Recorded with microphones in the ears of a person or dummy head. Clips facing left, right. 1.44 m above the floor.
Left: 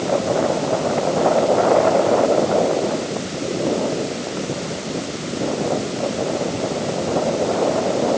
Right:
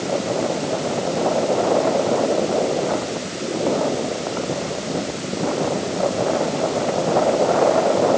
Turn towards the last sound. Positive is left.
No sound to turn to.